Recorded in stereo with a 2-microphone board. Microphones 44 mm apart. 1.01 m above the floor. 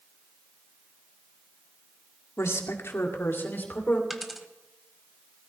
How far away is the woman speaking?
About 2.0 m.